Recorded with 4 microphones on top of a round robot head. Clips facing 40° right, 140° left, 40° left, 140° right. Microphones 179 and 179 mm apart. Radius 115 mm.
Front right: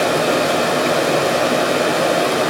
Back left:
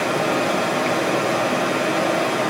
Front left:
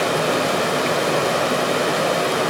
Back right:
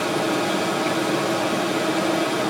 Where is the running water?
10° left, 2 m.